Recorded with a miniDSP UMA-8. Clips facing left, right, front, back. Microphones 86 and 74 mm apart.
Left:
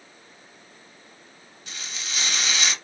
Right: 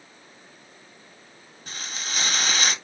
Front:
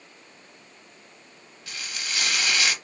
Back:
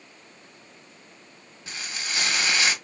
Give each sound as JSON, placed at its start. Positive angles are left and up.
{"t": 1.7, "sound": "frying", "azimuth_deg": -120, "distance_m": 1.2}